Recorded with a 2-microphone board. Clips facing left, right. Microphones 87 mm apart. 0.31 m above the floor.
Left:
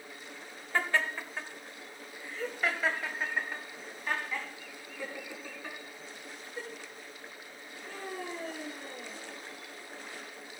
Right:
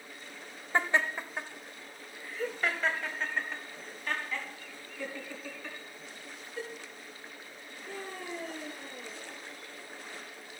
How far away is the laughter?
About 1.0 m.